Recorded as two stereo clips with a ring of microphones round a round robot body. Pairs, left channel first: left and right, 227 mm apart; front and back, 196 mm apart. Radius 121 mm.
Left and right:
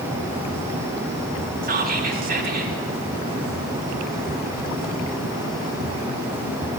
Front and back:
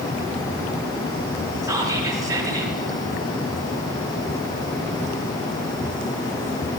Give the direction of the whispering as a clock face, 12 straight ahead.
4 o'clock.